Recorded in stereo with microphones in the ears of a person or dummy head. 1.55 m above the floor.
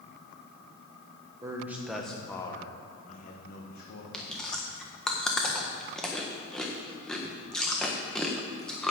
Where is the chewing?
5° left (ahead or behind), 1.3 m.